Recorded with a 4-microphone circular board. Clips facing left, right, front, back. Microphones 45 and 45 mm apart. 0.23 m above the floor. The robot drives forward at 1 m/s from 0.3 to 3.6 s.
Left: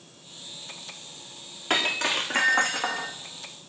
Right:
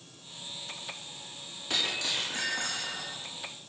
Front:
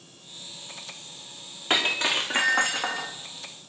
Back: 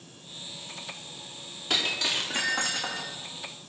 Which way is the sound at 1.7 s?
45° left.